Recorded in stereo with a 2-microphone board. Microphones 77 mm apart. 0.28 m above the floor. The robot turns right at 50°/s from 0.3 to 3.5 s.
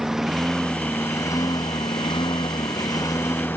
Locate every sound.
0.0 s a lawn mower: 5° right; by 3.6 s 155° left